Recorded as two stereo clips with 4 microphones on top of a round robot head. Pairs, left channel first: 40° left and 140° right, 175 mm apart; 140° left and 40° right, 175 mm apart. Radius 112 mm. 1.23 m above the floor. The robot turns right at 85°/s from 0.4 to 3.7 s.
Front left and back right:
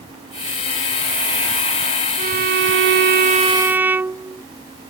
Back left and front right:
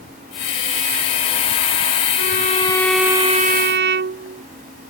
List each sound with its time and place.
2.2 s a violin: 170° left; by 4.4 s 65° right